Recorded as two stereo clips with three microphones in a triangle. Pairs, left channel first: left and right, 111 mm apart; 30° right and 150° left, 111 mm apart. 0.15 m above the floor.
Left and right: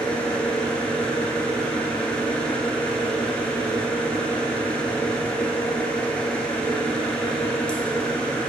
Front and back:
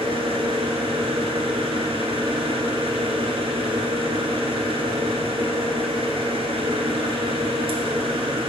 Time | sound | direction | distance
0.0 | an engine running | 170° left | 0.9 m